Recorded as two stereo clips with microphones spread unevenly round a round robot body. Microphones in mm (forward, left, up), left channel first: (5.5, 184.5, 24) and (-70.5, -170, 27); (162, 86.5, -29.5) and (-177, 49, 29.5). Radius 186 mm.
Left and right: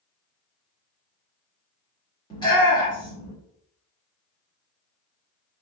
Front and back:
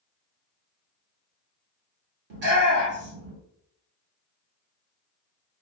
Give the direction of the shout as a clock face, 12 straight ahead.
7 o'clock.